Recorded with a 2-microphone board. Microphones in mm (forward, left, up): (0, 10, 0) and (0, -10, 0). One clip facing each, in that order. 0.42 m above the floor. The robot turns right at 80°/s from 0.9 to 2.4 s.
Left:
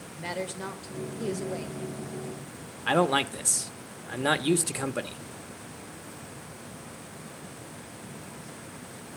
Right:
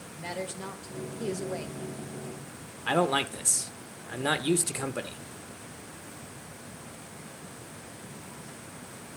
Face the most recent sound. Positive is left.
turn(degrees=5)  # may be behind; listen again after turning